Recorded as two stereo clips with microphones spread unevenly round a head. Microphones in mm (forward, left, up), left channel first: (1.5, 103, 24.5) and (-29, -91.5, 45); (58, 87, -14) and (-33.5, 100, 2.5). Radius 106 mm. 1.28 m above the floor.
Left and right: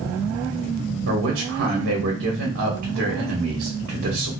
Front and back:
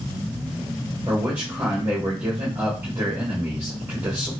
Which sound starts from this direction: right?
A man speaking, at 1.1 s.